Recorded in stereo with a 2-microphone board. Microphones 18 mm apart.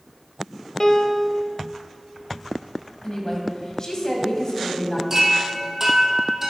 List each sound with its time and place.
0.8 s a piano: 30° left (ahead or behind), 0.8 m
3.0 s a woman speaking: 40° left (ahead or behind), 1.8 m
5.1 s a chime: 25° right (ahead or behind), 1.8 m